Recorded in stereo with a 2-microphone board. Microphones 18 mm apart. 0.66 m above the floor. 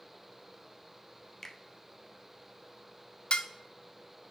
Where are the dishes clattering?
60° left (ahead or behind), 0.7 m.